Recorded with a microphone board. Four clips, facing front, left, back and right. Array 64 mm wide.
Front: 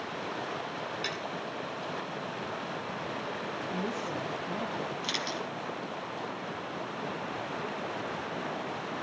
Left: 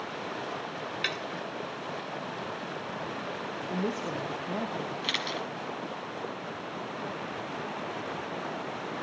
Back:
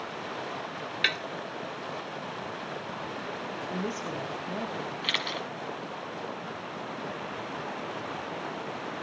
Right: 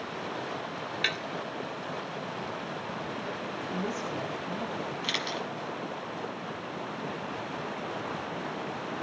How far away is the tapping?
About 1.1 m.